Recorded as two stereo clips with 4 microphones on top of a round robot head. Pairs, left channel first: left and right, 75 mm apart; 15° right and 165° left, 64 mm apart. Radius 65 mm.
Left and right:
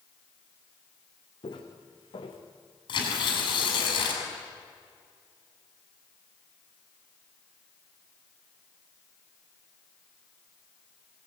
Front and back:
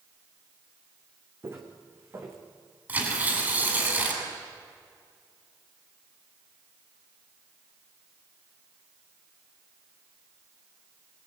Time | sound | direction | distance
1.4 | footsteps | 115° left | 3.5 m
2.9 | tearing paper | 105° left | 7 m